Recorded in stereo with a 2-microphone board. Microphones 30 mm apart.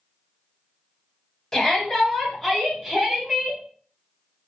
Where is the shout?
20° left (ahead or behind), 1.5 m; by 3.6 s 15° right (ahead or behind), 1.5 m.